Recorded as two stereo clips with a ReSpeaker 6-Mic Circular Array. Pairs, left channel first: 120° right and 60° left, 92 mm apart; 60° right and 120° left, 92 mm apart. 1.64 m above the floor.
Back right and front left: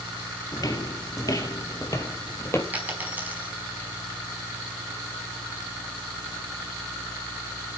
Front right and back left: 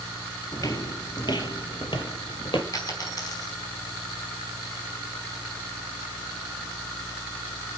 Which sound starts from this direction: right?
Footsteps, at 0.5 s.